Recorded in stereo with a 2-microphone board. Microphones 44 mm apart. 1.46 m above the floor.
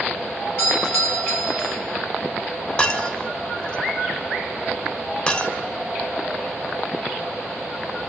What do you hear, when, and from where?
0.6 s a doorbell: 60° left (ahead or behind), 7 m
2.8 s breaking glass: 30° left (ahead or behind), 3.5 m